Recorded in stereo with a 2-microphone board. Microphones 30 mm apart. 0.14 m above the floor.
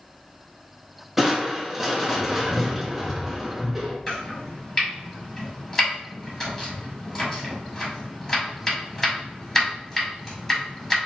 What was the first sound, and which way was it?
Crushing, 10° right (ahead or behind).